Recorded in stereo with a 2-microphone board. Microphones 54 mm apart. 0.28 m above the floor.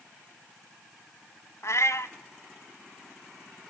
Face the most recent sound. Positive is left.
turn(degrees=60)  # may be behind; listen again after turning